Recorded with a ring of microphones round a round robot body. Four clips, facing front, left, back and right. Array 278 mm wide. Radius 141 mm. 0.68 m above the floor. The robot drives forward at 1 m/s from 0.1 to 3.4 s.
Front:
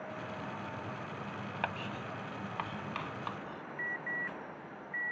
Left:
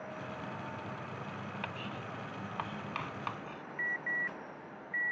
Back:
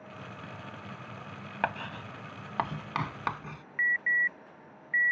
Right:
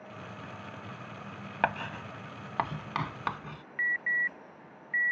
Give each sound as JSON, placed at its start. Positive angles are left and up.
{"t": 1.6, "sound": "writing", "azimuth_deg": -110}
{"t": 3.8, "sound": "an alarm", "azimuth_deg": -150}